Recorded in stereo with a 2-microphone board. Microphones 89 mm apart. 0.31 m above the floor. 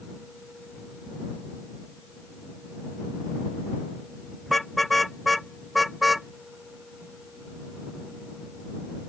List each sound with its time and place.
4.5 s a car horn: centre (ahead or behind)